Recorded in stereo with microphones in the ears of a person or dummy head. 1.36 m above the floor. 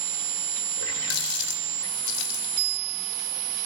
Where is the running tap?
80° left, 3 m.